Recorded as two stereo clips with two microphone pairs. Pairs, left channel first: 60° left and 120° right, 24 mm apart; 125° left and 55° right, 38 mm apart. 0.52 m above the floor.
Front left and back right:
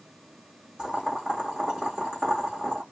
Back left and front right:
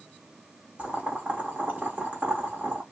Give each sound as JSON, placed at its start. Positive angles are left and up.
{"t": 0.8, "sound": "boiling", "azimuth_deg": -85, "distance_m": 1.2}